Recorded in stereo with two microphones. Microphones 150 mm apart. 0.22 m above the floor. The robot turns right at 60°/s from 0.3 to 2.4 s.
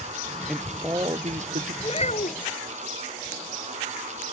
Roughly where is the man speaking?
Behind.